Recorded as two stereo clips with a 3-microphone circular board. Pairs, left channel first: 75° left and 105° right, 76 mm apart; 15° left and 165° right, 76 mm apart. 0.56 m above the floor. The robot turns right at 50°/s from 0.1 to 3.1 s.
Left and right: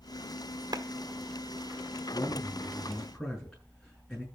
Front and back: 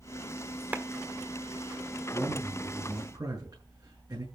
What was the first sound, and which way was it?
A clap, 100° right.